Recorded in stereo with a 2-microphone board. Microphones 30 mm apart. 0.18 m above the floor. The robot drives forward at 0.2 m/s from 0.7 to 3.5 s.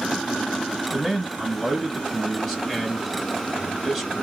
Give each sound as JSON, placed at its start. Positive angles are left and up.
{"t": 0.8, "sound": "a man speaking", "side_deg": 5, "distance_m": 2.5}